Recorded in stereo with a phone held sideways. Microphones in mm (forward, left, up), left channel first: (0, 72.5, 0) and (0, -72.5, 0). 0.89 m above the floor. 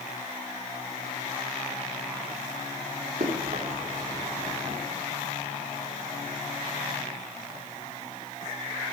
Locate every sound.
3.2 s running footsteps: 60° right (ahead or behind), 5 m; by 4.8 s 50° right (ahead or behind), 4.5 m